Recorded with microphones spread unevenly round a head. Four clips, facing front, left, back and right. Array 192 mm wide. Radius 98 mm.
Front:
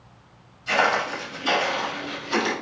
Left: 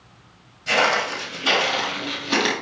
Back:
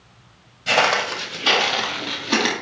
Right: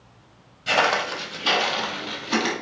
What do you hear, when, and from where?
0.7 s footsteps: 170° right, 2.5 m; by 2.5 s 150° left, 2.5 m